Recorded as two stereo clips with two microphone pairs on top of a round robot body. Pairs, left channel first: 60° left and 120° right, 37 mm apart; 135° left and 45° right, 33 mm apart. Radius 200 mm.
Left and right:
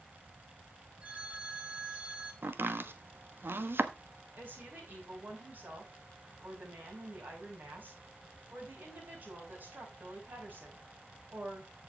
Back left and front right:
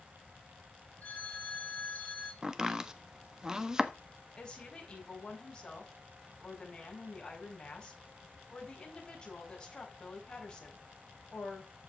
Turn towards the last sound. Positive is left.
turn(degrees=-170)